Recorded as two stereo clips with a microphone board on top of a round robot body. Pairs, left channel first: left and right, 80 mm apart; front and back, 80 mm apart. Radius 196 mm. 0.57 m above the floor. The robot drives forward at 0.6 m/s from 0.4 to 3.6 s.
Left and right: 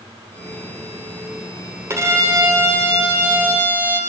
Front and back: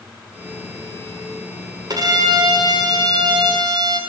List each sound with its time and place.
1.9 s a violin: 145° right, 3.5 m; by 4.0 s 150° right, 4.5 m